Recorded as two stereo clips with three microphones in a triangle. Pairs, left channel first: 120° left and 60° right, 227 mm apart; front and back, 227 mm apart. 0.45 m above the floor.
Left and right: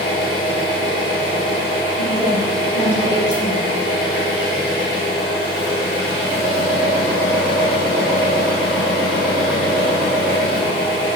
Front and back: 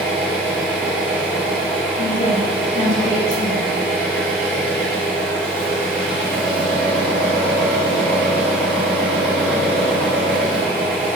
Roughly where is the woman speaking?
Ahead left.